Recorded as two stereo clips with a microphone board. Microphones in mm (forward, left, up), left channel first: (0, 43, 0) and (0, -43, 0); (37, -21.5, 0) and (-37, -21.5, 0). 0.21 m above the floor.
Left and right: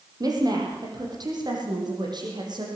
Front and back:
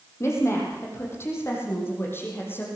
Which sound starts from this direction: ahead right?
A woman speaking, at 0.2 s.